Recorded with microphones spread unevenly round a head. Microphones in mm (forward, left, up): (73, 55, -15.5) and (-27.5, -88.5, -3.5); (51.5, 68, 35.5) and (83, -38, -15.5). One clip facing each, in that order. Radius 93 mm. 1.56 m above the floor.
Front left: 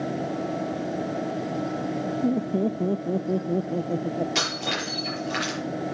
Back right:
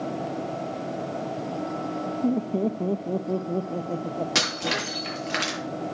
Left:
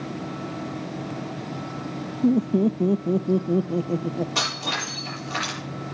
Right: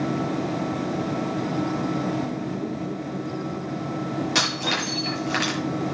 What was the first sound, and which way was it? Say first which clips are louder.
Laughter: even, left 8 dB; 140° left.